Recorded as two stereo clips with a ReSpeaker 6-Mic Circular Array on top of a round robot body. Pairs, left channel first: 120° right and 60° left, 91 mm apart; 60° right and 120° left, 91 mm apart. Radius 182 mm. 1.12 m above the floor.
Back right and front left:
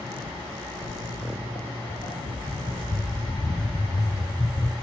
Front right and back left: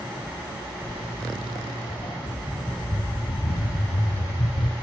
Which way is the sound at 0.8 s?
115° right.